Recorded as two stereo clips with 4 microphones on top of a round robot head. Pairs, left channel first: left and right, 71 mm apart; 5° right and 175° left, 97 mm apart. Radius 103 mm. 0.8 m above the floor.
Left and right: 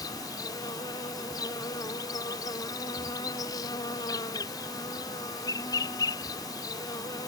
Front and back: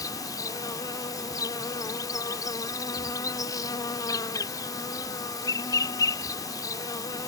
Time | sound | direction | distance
0.0 | an insect | 50° left | ?